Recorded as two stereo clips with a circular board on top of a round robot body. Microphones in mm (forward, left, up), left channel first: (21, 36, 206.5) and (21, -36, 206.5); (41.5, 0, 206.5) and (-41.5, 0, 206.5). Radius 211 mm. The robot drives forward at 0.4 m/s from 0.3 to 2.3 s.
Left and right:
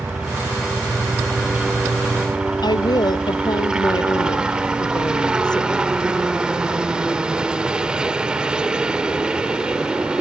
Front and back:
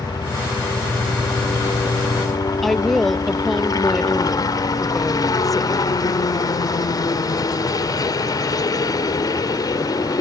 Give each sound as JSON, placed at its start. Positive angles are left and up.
{"t": 0.0, "sound": "a helicopter", "azimuth_deg": -15}
{"t": 2.6, "sound": "a woman speaking", "azimuth_deg": 90}